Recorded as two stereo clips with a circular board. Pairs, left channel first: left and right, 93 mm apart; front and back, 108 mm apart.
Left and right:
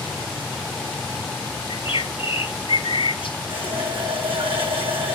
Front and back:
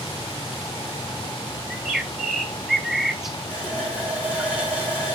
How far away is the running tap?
About 6 m.